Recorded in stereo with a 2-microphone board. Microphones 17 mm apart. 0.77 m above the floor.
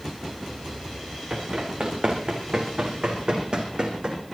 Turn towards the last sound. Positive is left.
turn(degrees=-45)  # may be behind; listen again after turning